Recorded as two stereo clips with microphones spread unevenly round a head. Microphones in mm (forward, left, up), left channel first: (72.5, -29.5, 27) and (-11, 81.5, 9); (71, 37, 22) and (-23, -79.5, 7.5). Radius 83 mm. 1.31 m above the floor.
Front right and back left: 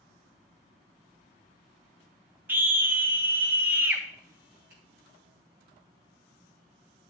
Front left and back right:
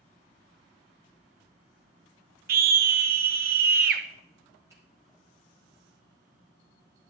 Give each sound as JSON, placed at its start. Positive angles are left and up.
{"t": 2.5, "sound": "a scream", "azimuth_deg": -155, "distance_m": 1.2}
{"t": 4.7, "sound": "a finger snap", "azimuth_deg": 155, "distance_m": 3.0}